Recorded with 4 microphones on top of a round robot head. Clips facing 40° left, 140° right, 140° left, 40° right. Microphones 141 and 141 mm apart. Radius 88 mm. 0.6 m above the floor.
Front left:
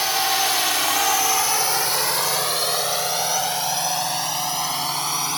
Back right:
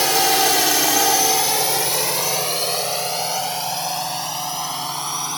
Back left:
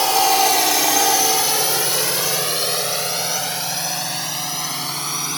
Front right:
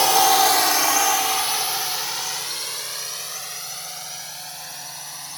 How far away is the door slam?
No door slam in this recording.